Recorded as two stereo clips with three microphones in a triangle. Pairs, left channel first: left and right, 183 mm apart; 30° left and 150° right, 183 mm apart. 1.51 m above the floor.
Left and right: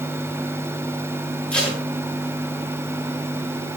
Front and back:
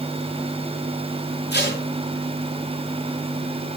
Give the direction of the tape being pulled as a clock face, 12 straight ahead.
12 o'clock.